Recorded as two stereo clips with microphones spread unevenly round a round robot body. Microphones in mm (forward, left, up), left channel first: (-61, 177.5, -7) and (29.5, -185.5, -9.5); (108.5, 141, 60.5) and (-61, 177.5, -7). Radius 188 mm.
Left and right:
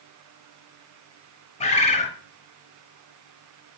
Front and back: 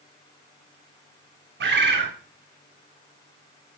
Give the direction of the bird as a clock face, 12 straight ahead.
6 o'clock.